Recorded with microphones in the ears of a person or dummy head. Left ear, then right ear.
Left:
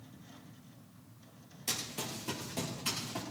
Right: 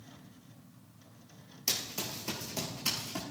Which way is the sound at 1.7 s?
20° right (ahead or behind).